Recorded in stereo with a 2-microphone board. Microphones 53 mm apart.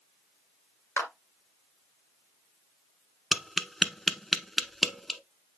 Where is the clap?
65° left (ahead or behind), 2 m.